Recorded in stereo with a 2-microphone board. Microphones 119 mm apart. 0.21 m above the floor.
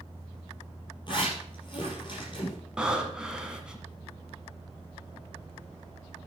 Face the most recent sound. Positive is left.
turn(degrees=-10)  # may be behind; listen again after turning